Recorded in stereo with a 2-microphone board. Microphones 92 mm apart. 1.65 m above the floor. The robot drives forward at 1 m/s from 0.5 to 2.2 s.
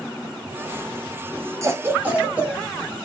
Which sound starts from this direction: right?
A cough, at 1.6 s.